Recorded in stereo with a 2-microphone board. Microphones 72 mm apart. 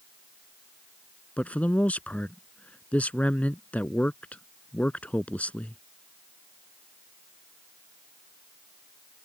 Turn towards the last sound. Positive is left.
turn(degrees=20)  # may be behind; listen again after turning